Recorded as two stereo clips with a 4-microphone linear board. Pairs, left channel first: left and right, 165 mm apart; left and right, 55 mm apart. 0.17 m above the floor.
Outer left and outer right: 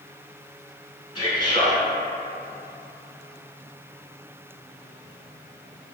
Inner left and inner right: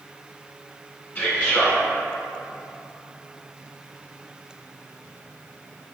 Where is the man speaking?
30° left (ahead or behind), 1.2 m.